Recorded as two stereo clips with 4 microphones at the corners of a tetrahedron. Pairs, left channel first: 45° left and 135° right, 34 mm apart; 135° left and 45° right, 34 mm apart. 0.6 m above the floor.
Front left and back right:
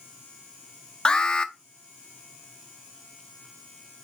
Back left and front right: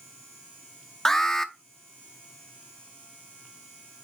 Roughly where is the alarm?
Left.